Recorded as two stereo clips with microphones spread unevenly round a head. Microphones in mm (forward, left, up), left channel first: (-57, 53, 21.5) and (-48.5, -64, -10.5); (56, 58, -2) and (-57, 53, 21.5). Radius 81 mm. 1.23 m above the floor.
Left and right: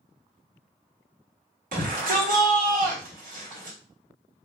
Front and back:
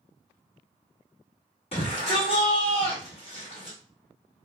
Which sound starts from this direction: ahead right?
A shout, at 1.7 s.